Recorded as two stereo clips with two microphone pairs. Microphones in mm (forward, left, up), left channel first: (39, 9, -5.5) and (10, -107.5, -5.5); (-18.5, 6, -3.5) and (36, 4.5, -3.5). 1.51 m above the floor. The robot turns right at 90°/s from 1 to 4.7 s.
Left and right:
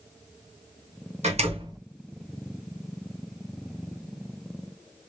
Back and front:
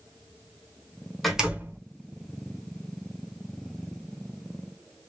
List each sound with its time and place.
1.2 s a door slam: 95° right, 1.3 m; by 1.8 s 45° right, 1.3 m